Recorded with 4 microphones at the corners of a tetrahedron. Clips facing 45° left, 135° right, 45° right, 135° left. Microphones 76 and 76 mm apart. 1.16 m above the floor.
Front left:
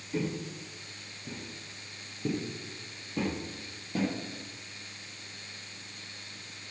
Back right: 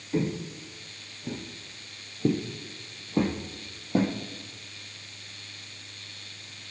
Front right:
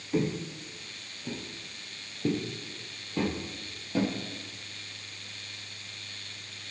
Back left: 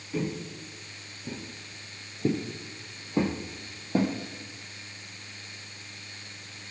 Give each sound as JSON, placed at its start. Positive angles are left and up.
{"t": 0.1, "sound": "footsteps", "azimuth_deg": -85, "distance_m": 1.4}